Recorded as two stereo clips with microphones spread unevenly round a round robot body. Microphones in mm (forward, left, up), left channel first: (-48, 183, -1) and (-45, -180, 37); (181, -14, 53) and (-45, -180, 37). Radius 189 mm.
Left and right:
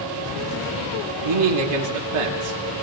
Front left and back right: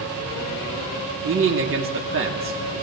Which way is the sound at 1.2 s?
100° right.